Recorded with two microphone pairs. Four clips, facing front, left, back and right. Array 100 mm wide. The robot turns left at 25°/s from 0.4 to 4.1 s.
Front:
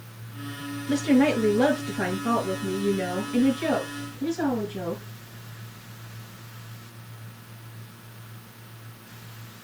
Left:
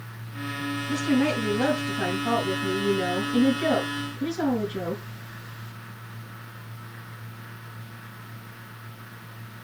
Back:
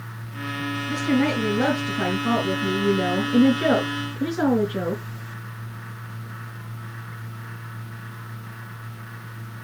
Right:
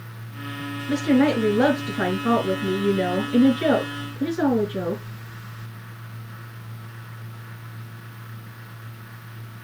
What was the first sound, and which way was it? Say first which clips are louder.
A woman speaking: right 5 dB, front 2 dB; 75° right.